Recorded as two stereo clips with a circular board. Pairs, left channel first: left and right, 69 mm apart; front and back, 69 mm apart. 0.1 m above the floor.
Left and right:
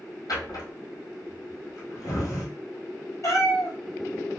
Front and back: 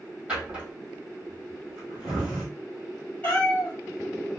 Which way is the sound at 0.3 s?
105° left.